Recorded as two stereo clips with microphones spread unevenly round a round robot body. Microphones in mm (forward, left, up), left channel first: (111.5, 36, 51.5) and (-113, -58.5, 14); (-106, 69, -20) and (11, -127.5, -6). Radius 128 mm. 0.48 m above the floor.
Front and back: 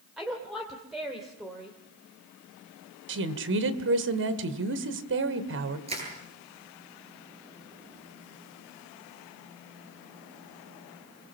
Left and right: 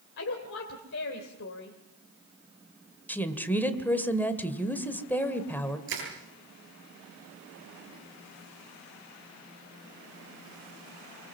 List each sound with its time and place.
0.2 s a woman speaking: 120° left, 2 m
3.1 s a woman speaking: 160° right, 2.0 m
5.9 s crushing: 90° right, 9 m